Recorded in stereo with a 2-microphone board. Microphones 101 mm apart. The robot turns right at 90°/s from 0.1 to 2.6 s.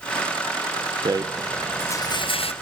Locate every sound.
1.1 s a rattle: 45° right, 0.6 m; by 2.5 s 85° left, 0.6 m